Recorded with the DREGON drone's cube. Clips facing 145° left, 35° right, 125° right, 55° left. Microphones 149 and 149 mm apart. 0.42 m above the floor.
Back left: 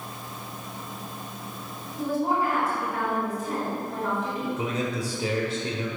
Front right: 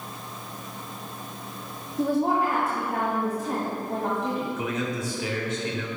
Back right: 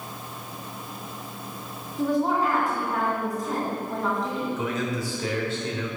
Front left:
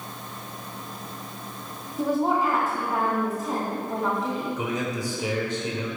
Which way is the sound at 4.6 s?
120° left.